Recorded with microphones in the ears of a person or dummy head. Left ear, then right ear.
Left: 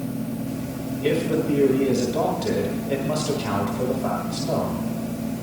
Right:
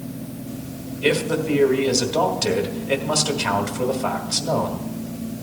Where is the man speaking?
60° right (ahead or behind), 2 m.